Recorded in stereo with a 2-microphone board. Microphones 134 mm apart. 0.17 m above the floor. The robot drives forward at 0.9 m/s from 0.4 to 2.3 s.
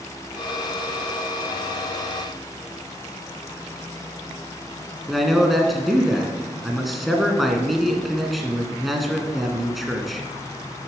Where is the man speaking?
Centre (ahead or behind), 1.5 m.